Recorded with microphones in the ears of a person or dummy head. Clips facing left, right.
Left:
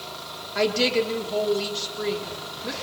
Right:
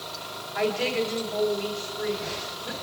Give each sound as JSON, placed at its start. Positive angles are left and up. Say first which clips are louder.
{"t": 0.6, "sound": "a woman speaking", "louder": "left 3 dB", "side_deg": 50, "distance_m": 3.5}